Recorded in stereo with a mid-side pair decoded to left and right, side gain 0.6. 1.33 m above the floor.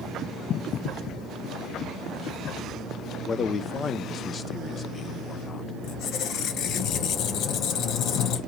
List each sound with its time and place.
3.3 s a man speaking: 35° left, 0.5 m
5.8 s a squeak: 60° left, 0.6 m